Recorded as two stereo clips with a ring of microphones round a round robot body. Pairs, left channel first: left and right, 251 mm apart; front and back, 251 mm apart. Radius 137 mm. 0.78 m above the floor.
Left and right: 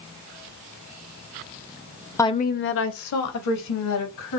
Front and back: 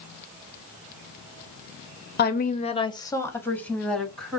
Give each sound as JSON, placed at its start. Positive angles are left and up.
{"t": 2.2, "sound": "a woman speaking", "azimuth_deg": 15, "distance_m": 0.6}